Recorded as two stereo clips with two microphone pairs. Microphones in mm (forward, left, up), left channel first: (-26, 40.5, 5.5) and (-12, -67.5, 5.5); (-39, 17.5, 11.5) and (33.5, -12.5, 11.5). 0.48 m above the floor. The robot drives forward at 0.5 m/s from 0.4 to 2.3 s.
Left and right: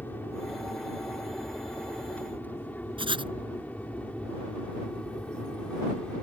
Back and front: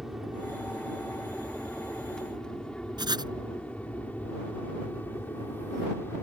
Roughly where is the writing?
Ahead right.